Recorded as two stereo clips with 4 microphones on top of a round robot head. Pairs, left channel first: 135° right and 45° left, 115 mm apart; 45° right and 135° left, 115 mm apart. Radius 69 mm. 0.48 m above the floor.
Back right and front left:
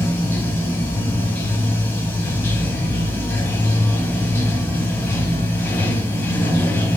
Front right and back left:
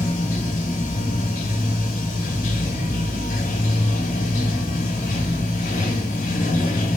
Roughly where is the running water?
Ahead right.